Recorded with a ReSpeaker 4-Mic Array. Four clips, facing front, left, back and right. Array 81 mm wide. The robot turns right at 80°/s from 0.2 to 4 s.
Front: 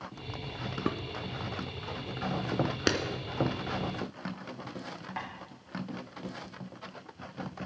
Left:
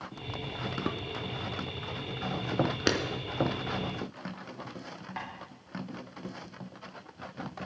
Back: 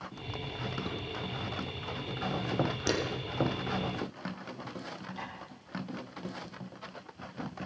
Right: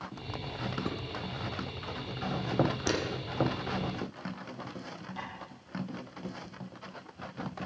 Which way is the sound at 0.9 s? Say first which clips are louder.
Left 5 dB, front 6 dB; 20° left.